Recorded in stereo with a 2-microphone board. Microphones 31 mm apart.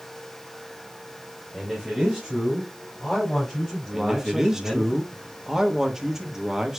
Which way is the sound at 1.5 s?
15° right (ahead or behind).